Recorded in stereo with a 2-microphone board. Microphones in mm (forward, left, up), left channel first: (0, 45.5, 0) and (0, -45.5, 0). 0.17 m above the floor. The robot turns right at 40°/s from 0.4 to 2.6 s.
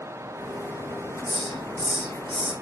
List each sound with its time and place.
1.2 s a hiss: 135° right, 7 m; by 2.5 s 80° right, 7 m